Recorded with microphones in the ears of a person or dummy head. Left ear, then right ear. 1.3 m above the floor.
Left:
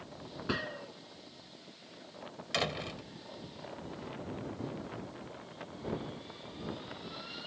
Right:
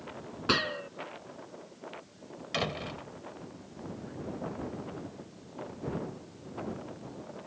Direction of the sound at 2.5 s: 15° left (ahead or behind).